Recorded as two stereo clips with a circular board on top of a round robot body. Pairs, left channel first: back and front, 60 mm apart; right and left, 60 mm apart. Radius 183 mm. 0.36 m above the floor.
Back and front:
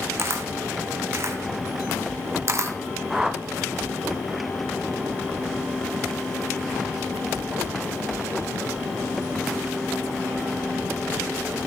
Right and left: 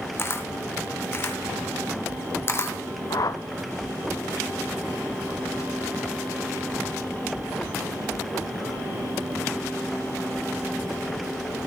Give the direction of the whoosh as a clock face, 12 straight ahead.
3 o'clock.